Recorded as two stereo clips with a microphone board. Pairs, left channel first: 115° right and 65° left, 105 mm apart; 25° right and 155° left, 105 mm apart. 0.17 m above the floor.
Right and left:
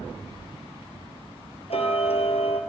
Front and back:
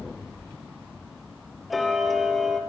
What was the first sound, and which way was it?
Ticking, 115° right.